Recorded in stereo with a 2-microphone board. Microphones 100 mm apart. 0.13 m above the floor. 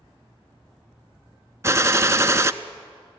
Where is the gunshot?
30° right (ahead or behind), 0.5 m.